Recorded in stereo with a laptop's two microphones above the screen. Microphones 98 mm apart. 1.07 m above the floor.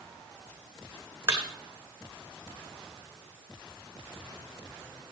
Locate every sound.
1.3 s a thud: 25° right (ahead or behind), 2.5 m